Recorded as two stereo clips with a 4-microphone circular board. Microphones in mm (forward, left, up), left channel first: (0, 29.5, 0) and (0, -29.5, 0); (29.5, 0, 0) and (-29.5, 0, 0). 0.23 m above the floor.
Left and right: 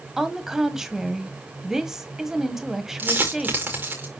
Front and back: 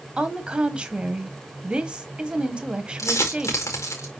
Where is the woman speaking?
160° right, 1.2 m.